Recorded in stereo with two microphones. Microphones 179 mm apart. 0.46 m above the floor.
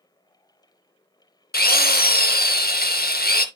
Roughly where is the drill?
Left.